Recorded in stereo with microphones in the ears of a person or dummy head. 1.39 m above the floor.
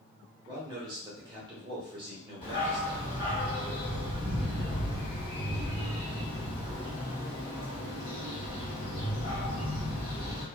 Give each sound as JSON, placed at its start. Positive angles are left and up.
{"t": 0.5, "sound": "a man speaking", "side_deg": -25, "distance_m": 0.7}
{"t": 2.4, "sound": "a dog barking", "side_deg": 30, "distance_m": 1.3}